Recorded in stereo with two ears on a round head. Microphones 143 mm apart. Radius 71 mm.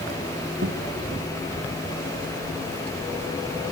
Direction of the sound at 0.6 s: 65° right (ahead or behind).